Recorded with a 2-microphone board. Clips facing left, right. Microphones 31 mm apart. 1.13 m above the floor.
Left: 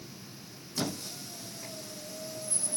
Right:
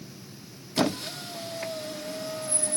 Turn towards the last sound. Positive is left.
turn(degrees=-60)  # may be behind; listen again after turning